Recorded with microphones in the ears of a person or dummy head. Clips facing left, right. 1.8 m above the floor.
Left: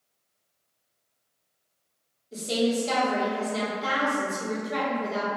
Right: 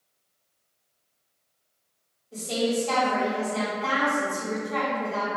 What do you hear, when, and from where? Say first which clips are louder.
2.3 s a woman speaking: left 1 dB; 30° left (ahead or behind), 1.4 m